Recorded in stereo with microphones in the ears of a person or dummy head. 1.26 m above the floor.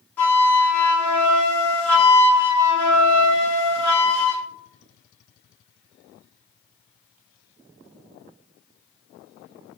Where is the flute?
15° left (ahead or behind), 0.8 m.